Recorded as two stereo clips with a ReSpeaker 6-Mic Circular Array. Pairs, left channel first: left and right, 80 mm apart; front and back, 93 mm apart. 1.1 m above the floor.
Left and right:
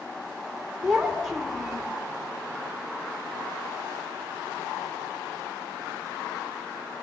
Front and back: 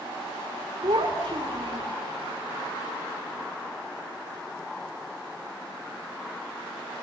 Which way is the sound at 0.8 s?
175° right.